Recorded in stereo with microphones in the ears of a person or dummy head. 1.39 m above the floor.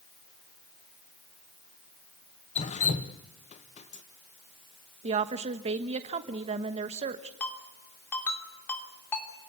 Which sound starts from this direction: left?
Dripping, at 2.5 s.